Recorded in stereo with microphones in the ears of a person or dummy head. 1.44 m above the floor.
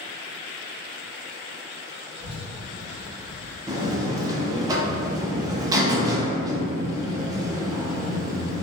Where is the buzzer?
25° right (ahead or behind), 0.5 m.